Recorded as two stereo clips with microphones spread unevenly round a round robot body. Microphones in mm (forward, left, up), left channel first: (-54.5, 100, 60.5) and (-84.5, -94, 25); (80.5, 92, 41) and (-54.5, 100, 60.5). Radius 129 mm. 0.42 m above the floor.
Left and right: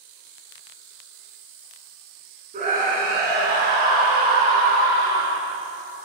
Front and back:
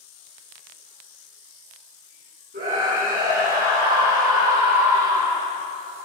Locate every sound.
2.5 s a scream: 145° right, 6 m